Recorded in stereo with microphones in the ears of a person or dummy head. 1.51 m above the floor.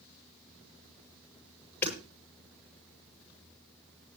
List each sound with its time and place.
1.8 s hammering: 10° left (ahead or behind), 9.5 m